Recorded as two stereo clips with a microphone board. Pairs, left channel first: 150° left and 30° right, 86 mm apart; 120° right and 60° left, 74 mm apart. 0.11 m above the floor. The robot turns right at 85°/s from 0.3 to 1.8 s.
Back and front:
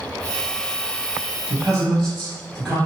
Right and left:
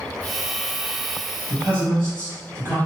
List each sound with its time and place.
1.5 s a man speaking: 45° left, 2.0 m; by 2.8 s 70° left, 2.0 m